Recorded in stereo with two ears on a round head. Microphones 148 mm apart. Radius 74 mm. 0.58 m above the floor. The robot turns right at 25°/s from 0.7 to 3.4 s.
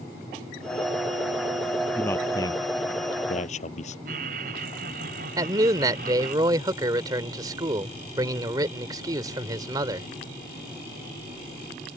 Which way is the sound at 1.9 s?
10° left (ahead or behind).